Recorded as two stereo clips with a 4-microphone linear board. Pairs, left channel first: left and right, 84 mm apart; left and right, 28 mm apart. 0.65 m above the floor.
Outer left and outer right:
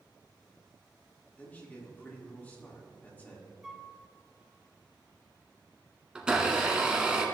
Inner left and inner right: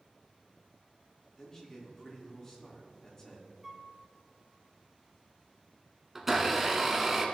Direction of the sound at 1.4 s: 20° left (ahead or behind).